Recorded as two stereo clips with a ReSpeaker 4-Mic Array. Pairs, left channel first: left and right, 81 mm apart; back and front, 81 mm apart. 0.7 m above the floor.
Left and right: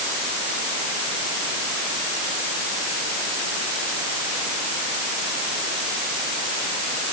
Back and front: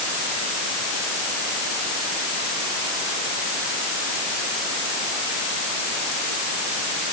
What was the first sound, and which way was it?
Only background noise.